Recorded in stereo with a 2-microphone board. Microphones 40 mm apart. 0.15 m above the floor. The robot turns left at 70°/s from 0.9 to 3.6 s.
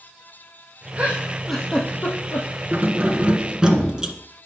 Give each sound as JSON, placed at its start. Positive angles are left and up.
{"t": 1.0, "sound": "a giggle", "side_deg": -35, "distance_m": 2.0}
{"t": 2.7, "sound": "keys jangling", "azimuth_deg": -90, "distance_m": 1.5}